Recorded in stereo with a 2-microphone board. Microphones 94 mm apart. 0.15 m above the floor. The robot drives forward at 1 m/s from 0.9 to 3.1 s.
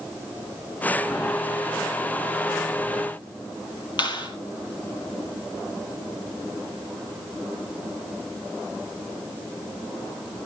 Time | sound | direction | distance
4.0 | a clap | 50° left (ahead or behind) | 4 m